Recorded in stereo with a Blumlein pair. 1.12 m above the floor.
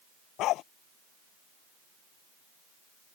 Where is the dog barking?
35° left.